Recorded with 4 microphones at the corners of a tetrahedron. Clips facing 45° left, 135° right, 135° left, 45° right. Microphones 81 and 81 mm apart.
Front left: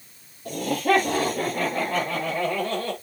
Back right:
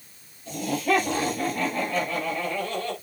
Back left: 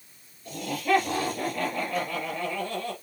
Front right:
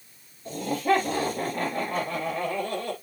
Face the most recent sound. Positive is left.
turn(degrees=0)